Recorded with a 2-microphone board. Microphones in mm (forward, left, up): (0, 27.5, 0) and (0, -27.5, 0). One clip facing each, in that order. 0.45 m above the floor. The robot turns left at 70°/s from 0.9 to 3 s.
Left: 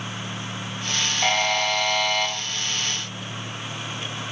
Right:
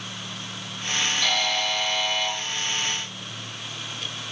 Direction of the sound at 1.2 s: 145° left.